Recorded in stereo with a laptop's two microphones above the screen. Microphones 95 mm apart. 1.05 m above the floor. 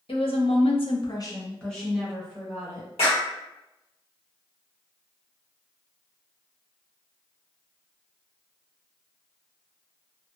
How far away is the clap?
About 1.3 m.